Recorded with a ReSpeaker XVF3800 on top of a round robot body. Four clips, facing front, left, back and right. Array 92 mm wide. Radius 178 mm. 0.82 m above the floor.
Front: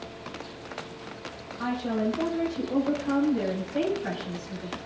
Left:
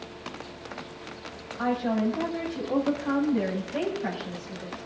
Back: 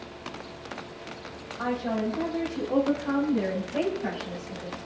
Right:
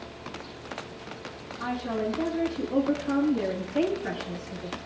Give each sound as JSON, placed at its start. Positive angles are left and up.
{"t": 1.6, "sound": "a woman speaking", "azimuth_deg": 115, "distance_m": 6.0}